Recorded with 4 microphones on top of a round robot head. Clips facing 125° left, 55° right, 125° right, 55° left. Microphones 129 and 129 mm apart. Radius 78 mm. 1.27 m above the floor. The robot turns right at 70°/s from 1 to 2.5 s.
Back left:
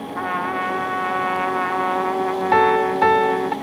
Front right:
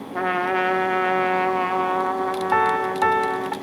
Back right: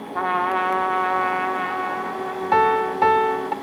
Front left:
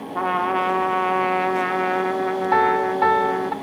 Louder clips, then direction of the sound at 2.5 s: Back left 6 dB, back right 2 dB; 165° left.